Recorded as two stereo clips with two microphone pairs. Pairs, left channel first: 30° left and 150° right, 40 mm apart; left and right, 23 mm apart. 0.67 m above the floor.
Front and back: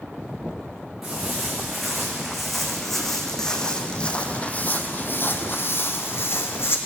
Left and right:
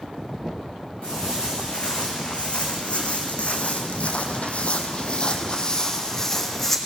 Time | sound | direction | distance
1.0 | footsteps | 125° left | 3 m